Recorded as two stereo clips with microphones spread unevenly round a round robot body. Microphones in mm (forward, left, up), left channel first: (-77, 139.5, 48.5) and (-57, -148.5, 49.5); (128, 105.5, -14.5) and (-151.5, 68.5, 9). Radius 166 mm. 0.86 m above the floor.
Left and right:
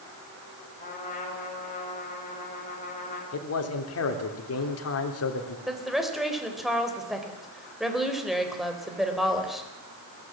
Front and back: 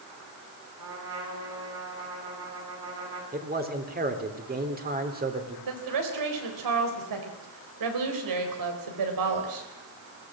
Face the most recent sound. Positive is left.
turn(degrees=-175)